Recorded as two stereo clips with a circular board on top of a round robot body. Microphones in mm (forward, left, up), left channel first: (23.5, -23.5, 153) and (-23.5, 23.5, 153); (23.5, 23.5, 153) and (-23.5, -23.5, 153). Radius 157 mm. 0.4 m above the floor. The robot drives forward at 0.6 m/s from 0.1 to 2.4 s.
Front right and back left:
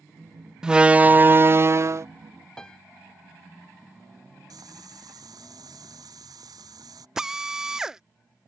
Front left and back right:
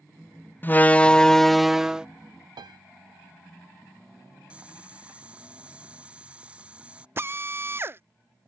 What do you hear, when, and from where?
0.6 s a door slam: 65° left; by 2.1 s 150° left
2.6 s a piano: 125° right
4.5 s boiling: 150° left
7.2 s a drill: 150° right